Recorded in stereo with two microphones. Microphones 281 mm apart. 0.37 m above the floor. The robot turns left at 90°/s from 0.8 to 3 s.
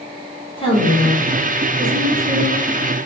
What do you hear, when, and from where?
0.6 s a woman speaking: 40° left, 1.4 m; by 2.6 s 120° right, 1.4 m